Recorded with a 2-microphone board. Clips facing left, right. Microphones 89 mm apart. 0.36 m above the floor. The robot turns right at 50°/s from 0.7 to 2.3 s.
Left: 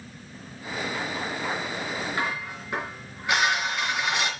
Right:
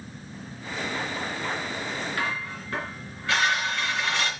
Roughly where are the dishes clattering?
Left.